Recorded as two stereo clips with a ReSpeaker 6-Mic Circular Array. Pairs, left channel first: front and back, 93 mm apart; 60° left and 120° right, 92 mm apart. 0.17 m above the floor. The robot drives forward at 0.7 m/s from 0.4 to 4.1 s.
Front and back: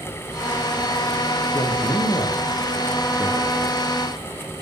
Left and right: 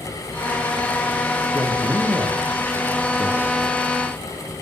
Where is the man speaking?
45° right, 9 m; by 3.8 s 55° right, 8 m.